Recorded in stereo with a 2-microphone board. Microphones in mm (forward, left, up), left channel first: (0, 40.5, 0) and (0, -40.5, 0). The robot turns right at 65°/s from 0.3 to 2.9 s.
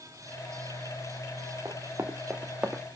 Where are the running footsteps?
50° right (ahead or behind), 1.8 m; by 2.8 s 5° right (ahead or behind), 1.3 m.